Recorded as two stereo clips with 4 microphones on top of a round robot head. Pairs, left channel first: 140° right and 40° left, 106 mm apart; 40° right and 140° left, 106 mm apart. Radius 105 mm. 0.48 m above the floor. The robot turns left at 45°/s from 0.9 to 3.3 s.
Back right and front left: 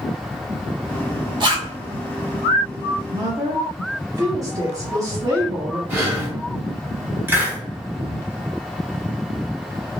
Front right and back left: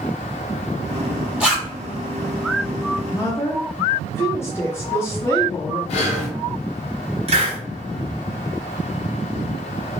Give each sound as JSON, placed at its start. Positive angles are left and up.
{"t": 1.4, "sound": "a zipper", "azimuth_deg": 60, "distance_m": 1.6}
{"t": 3.0, "sound": "a woman speaking", "azimuth_deg": 20, "distance_m": 0.9}
{"t": 5.9, "sound": "breathing", "azimuth_deg": -35, "distance_m": 1.2}
{"t": 7.3, "sound": "a hiss", "azimuth_deg": 110, "distance_m": 1.2}